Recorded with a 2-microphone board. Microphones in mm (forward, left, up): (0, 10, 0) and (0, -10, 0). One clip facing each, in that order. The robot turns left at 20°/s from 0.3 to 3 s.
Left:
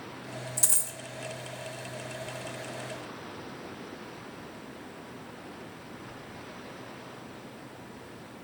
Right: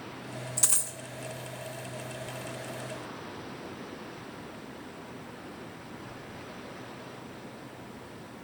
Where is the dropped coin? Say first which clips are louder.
Right 1 dB; 15° right (ahead or behind), 1.0 m.